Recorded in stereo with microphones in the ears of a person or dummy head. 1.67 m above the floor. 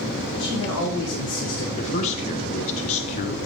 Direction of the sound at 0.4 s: 75° left (ahead or behind).